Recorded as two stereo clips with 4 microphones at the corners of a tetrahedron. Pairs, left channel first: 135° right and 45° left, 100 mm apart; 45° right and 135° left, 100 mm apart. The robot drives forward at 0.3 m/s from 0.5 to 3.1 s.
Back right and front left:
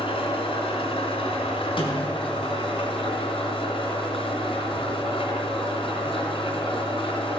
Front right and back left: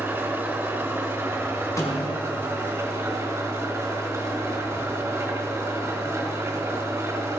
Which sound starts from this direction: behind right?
An engine running, at 0.0 s.